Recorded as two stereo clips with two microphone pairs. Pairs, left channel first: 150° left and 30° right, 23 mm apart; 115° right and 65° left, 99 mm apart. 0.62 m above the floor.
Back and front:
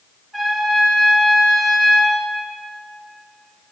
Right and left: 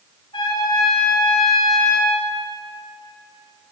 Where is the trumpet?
140° right, 1.1 m.